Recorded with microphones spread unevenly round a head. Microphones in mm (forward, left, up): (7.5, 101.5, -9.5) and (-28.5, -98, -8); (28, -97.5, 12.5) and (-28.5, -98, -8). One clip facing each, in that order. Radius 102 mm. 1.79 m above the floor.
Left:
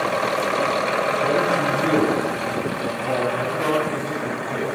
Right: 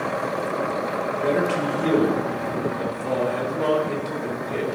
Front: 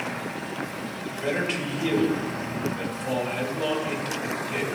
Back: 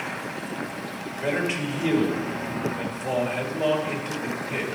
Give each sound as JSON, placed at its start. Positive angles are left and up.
{"t": 1.2, "sound": "a man speaking", "azimuth_deg": -100, "distance_m": 5.0}